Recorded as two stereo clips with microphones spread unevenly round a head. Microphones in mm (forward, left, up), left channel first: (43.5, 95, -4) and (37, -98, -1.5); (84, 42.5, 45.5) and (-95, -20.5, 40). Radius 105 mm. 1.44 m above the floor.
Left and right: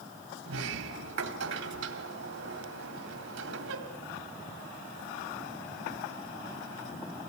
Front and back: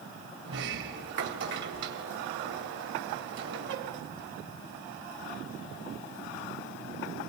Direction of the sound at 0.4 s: 130° right.